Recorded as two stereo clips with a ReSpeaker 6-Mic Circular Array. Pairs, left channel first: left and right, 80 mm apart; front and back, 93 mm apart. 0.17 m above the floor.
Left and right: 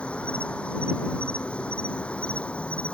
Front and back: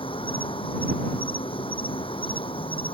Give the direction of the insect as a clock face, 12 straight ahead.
12 o'clock.